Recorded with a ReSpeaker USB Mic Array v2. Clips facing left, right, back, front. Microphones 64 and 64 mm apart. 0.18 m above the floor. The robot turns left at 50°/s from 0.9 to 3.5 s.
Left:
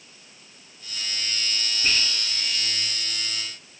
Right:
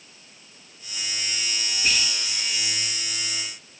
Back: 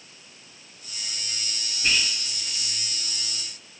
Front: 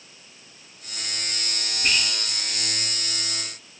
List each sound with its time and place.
1.8 s whispering: 65° left, 1.6 m; by 2.1 s 55° left, 1.6 m